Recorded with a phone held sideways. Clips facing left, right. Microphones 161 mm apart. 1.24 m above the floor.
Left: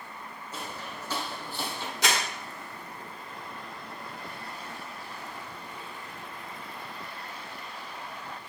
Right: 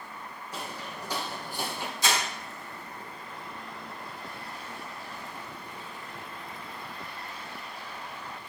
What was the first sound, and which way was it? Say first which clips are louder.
Footsteps: right 1 dB; 10° right (ahead or behind).